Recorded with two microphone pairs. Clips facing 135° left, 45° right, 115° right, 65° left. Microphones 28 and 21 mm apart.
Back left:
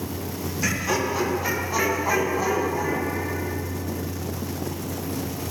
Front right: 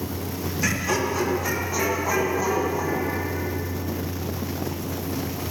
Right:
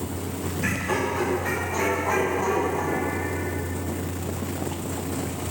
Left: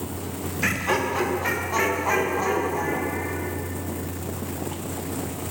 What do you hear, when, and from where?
0.6 s laughter: 45° left, 0.9 m; by 3.5 s 90° left, 2.0 m